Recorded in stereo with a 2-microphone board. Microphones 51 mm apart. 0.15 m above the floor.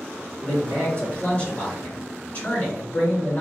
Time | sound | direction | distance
0.4 | a man speaking | 35° left (ahead or behind) | 2.0 m